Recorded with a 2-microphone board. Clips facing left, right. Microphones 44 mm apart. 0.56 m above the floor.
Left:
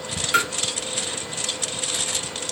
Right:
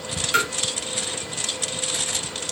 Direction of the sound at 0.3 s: 5° left (ahead or behind).